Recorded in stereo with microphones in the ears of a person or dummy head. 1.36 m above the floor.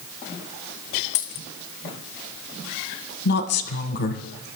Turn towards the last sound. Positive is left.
turn(degrees=55)  # may be behind; listen again after turning